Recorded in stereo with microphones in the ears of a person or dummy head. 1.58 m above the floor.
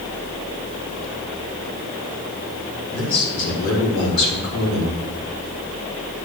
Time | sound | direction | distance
2.9 | a man speaking | 90° left | 4.5 m